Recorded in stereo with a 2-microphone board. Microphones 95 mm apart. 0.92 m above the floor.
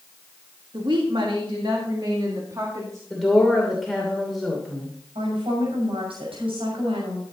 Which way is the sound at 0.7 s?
65° right (ahead or behind).